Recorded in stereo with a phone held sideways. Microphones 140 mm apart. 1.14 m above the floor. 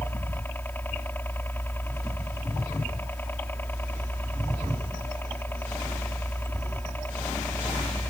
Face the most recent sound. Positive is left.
turn(degrees=15)  # may be behind; listen again after turning